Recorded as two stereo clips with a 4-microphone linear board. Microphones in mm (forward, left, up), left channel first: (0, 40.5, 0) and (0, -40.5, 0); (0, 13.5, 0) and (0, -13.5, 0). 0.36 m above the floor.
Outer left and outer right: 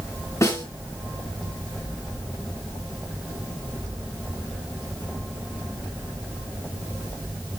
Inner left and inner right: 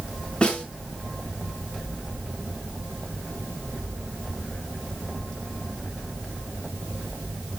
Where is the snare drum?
35° left (ahead or behind), 5 m.